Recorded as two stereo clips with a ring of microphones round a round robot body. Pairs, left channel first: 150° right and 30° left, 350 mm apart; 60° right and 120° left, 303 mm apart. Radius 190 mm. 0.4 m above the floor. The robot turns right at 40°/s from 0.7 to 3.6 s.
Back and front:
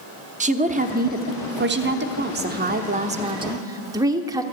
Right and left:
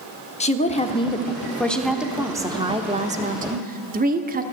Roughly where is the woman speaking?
Ahead.